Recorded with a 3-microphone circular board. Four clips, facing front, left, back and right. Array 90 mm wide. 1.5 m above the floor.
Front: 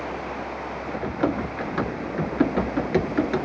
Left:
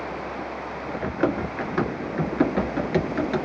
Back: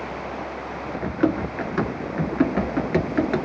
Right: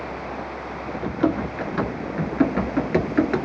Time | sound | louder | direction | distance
1.0 | running footsteps | right 2 dB, back 3 dB | 120° left | 1.6 m